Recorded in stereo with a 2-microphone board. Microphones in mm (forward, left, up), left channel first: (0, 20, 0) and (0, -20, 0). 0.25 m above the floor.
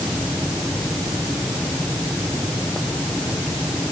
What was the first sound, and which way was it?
Only background noise.